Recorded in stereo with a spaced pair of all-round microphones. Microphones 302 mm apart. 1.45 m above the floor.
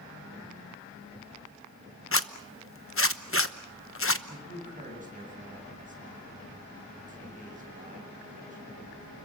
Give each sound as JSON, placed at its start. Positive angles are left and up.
{"t": 2.1, "sound": "a zipper", "side_deg": 45, "distance_m": 1.0}
{"t": 4.3, "sound": "a man speaking", "side_deg": -25, "distance_m": 7.5}